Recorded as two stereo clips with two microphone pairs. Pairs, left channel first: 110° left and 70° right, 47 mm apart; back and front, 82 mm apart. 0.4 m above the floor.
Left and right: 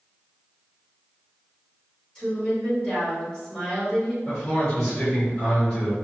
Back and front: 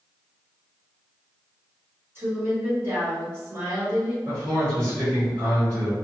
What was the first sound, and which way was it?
A woman speaking, 45° left.